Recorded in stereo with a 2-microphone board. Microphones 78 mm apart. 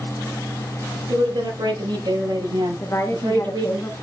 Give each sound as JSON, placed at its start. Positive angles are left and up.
{"t": 1.1, "sound": "a woman speaking", "side_deg": -80, "distance_m": 8.0}
{"t": 2.8, "sound": "a woman speaking", "side_deg": 35, "distance_m": 2.5}